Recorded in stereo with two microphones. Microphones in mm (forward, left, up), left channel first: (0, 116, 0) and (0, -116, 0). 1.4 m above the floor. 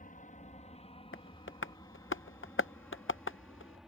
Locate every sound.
0.0 s an aircraft: 35° left (ahead or behind); by 3.9 s 5° right (ahead or behind)
1.1 s tapping: 60° left (ahead or behind)